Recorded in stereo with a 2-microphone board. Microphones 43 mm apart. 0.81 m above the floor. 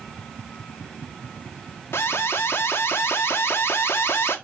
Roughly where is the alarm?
Left.